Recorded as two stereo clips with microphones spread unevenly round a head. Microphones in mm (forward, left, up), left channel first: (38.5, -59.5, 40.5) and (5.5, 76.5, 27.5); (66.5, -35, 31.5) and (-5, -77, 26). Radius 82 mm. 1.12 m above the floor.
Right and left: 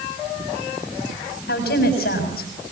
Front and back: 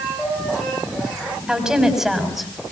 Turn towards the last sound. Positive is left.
turn(degrees=-60)